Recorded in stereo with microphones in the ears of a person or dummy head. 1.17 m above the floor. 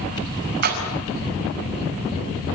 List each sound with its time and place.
0.6 s a splash: 45° right (ahead or behind), 5 m